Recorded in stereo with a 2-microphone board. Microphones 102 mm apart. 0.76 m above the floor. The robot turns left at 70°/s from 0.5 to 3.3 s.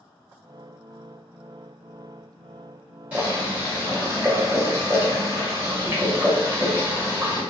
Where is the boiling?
15° right (ahead or behind), 1.2 m; by 7.4 s 25° right (ahead or behind), 1.2 m.